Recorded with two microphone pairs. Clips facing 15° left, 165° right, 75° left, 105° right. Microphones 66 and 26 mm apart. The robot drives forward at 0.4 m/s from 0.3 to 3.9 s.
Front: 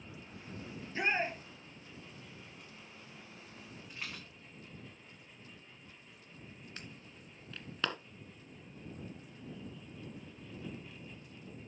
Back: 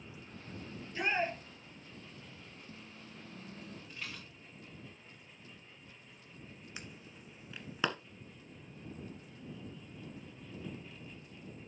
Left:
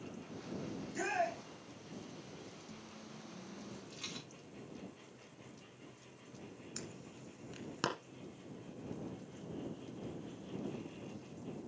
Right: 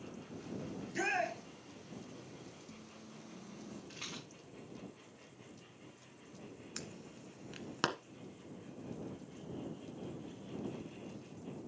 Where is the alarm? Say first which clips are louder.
Back 1 dB, right 1 dB; 125° right, 1.4 m.